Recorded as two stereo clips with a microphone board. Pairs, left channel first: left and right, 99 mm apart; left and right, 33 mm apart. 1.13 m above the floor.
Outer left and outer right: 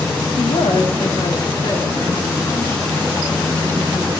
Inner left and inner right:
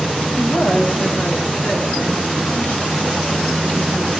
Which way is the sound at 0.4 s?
80° left.